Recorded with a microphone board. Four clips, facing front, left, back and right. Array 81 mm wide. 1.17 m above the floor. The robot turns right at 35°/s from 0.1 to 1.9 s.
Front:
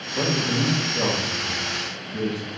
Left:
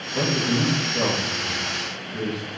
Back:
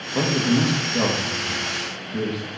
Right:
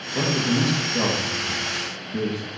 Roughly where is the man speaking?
Behind.